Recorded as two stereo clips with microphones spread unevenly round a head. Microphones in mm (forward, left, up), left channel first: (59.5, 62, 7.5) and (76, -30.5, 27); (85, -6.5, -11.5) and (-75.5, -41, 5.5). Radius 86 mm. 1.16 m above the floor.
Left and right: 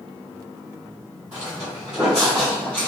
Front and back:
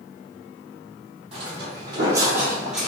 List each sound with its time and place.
1.3 s footsteps: 140° right, 1.6 m; by 2.9 s 175° left, 1.1 m